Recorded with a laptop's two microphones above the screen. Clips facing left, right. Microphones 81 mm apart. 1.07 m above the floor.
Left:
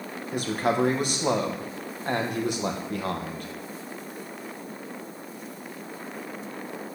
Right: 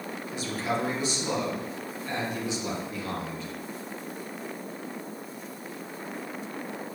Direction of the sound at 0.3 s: 55° left (ahead or behind).